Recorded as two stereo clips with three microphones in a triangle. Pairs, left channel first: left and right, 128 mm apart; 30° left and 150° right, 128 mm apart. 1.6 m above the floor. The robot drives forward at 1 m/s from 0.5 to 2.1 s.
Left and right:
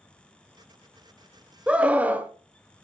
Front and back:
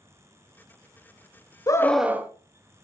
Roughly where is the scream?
Ahead.